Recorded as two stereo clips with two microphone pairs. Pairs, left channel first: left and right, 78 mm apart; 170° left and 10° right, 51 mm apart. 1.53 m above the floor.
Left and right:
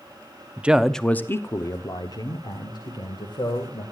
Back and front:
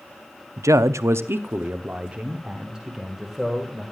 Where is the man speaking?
20° right, 0.6 m; by 3.8 s 75° left, 2 m.